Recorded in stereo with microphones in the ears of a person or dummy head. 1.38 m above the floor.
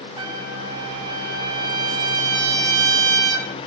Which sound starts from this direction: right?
A trumpet, at 0.2 s.